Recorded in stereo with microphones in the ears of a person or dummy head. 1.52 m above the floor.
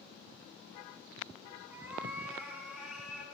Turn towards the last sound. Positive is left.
turn(degrees=10)  # may be behind; listen again after turning